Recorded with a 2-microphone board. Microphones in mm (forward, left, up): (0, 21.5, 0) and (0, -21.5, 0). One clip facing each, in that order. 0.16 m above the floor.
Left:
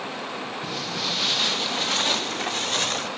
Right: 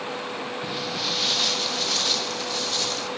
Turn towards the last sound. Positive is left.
turn(degrees=45)  # may be behind; listen again after turning